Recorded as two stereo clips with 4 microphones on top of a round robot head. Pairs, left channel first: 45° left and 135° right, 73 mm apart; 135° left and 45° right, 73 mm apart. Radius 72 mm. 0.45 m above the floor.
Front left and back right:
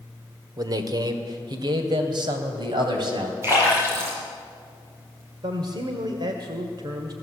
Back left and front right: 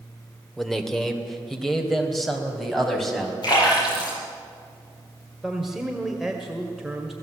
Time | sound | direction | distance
0.6 | a man speaking | 135° right | 2 m
3.4 | a splash | 165° left | 8.5 m
5.4 | a man speaking | 125° right | 1.9 m